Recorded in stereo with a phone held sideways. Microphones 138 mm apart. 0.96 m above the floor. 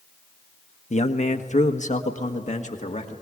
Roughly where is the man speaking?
Left.